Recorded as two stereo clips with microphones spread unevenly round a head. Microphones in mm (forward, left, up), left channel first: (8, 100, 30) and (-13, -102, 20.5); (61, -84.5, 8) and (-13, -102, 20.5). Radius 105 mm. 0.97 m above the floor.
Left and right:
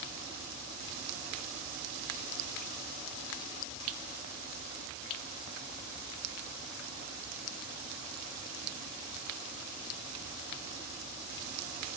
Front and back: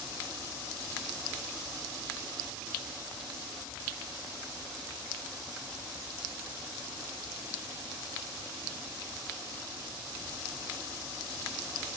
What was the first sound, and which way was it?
Only background noise.